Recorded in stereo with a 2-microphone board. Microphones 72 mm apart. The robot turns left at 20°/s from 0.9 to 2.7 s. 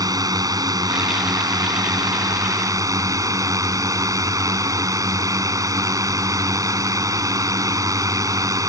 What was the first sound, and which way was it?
A drone, 80° right.